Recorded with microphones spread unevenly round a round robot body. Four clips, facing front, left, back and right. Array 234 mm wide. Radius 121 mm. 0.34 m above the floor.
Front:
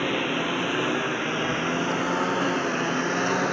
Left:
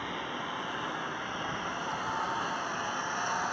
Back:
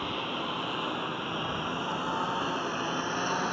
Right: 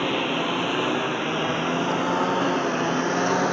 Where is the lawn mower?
45° right; by 3.5 s 55° right.